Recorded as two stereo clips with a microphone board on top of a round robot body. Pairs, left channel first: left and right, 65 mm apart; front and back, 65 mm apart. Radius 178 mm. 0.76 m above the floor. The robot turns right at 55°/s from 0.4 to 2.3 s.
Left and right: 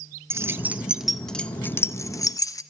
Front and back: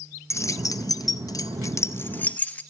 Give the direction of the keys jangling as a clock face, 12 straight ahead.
1 o'clock.